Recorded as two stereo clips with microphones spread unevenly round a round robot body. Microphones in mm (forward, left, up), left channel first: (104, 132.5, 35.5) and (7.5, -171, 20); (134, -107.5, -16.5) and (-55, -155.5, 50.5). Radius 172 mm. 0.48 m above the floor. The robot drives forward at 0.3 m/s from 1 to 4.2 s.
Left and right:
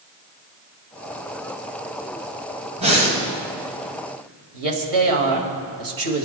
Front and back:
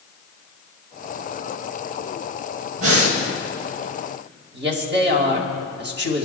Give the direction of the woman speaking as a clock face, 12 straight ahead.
4 o'clock.